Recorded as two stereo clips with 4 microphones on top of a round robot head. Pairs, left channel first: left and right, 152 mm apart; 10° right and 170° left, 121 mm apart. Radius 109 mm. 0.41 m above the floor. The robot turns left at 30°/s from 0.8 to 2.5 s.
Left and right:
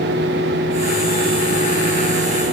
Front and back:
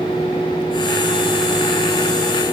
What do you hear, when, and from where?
Only background noise.